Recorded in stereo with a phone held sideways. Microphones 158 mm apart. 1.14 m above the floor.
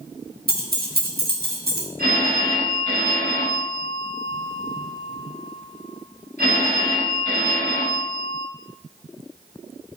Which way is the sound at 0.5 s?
75° right (ahead or behind).